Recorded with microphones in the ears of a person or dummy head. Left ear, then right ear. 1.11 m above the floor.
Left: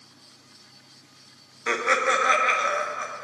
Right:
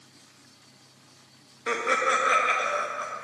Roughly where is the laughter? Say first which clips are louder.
Left 2 dB; centre.